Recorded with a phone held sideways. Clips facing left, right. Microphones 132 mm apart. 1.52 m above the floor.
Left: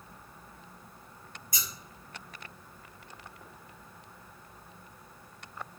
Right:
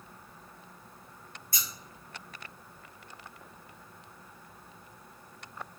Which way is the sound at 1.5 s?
15° left (ahead or behind).